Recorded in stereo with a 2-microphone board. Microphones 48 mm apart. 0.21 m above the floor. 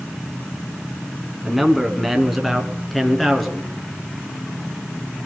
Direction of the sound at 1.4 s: 5° right (ahead or behind).